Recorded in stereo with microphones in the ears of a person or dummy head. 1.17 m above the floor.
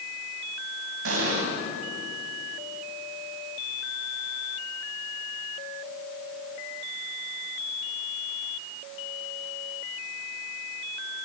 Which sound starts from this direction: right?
An explosion, at 1.1 s.